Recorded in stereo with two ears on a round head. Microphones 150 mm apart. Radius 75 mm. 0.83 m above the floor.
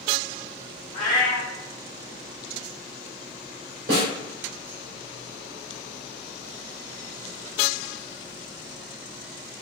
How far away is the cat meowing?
About 1.1 m.